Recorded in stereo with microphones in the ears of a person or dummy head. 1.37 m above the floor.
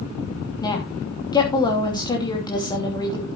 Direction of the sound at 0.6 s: 15° left (ahead or behind).